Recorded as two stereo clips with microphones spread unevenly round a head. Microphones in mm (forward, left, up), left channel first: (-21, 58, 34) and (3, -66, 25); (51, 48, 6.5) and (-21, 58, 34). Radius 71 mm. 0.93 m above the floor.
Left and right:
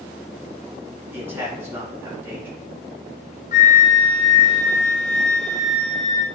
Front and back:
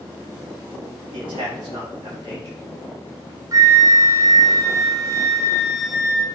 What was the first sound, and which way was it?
A man speaking, 150° right.